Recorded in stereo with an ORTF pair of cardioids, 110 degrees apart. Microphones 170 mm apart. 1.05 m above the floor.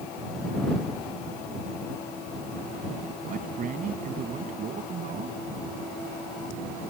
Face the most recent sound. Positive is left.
turn(degrees=-50)